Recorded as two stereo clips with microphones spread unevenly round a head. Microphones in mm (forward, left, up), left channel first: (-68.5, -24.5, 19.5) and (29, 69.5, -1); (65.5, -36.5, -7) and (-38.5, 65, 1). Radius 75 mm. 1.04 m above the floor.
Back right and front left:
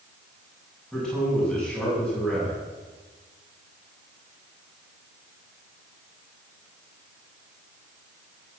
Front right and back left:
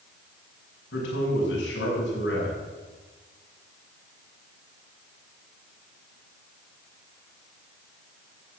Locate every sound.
0.9 s a man speaking: 50° right, 7.5 m